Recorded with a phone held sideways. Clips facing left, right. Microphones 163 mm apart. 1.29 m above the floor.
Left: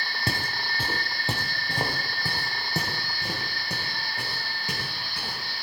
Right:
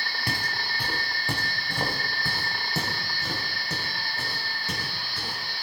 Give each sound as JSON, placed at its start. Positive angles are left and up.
{"t": 0.3, "sound": "footsteps", "side_deg": 25, "distance_m": 1.7}